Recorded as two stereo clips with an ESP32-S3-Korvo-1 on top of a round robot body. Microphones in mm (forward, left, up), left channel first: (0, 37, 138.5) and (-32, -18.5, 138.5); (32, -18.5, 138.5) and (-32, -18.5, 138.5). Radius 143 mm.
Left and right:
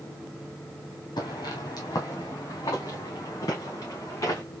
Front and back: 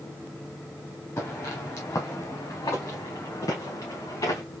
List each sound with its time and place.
1.2 s footsteps: 45° left, 1.3 m; by 4.4 s 20° left, 4 m